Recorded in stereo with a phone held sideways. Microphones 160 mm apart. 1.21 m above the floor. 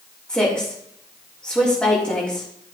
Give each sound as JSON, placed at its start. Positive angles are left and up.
{"t": 0.3, "sound": "a woman speaking", "side_deg": 5, "distance_m": 3.5}